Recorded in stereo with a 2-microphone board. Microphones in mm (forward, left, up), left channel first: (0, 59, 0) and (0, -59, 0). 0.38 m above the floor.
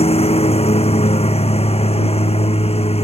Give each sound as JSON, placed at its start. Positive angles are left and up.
{"t": 0.0, "sound": "a lawn mower", "side_deg": 60}